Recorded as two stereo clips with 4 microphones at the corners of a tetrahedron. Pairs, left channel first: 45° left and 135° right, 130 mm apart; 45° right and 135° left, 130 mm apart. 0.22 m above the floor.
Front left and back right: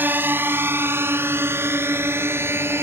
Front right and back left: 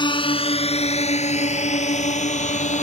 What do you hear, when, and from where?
0.0 s a drone: 65° right